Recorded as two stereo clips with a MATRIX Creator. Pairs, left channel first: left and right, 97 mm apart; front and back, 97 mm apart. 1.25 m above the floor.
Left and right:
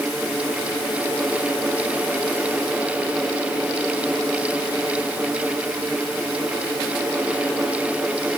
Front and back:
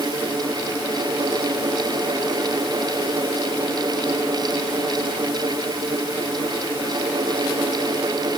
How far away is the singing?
No singing in this recording.